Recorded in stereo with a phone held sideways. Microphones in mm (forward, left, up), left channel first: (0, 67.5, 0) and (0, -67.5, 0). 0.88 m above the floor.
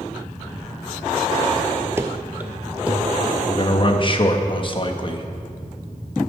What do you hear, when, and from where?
2.0 s running footsteps: 20° right (ahead or behind), 0.9 m; by 3.4 s 5° right (ahead or behind), 2.5 m
3.5 s a man speaking: 40° left (ahead or behind), 0.9 m